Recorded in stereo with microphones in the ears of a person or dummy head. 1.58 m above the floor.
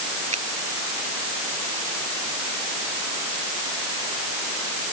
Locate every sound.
0.3 s a finger snap: 35° right (ahead or behind)